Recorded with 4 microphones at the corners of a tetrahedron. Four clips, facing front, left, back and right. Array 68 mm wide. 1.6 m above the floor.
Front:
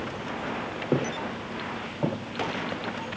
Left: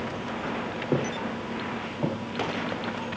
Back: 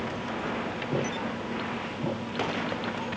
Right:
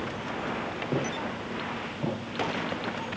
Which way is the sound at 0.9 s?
35° left.